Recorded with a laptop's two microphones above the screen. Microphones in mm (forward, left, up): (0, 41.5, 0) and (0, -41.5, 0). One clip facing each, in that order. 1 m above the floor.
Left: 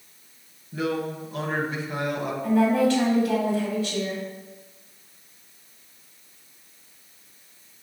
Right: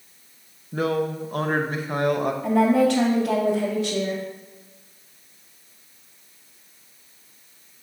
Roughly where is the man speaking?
Right.